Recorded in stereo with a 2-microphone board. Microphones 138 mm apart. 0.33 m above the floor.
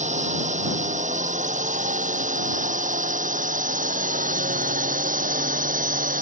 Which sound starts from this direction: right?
A drone, at 0.0 s.